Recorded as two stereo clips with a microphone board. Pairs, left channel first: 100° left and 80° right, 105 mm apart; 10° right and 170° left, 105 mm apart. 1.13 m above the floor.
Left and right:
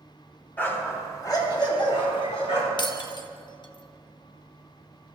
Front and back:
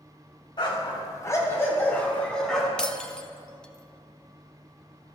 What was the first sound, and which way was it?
A dog barking, 30° left.